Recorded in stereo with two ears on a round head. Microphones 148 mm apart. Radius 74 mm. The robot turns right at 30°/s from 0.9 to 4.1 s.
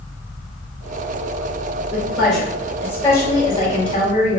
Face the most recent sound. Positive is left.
turn(degrees=50)